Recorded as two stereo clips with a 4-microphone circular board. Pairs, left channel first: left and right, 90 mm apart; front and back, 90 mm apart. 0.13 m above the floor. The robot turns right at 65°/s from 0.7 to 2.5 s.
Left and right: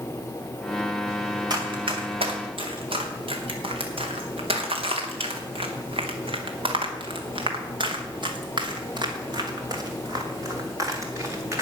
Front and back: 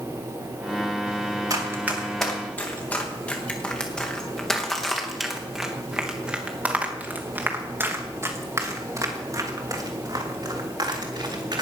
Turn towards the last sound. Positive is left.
turn(degrees=-145)